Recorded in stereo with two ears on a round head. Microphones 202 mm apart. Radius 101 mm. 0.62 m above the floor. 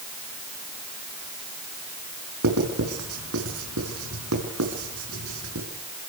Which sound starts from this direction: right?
Writing, at 2.4 s.